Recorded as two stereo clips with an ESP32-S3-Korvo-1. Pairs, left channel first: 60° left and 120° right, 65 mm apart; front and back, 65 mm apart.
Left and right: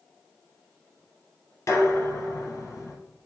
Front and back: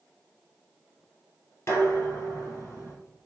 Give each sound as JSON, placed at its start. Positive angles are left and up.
{"t": 1.7, "sound": "dishes clattering", "azimuth_deg": 35, "distance_m": 1.7}